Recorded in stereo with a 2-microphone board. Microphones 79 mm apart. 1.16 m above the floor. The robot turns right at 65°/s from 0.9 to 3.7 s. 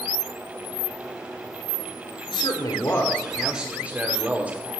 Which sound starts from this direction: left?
A man speaking, at 2.3 s.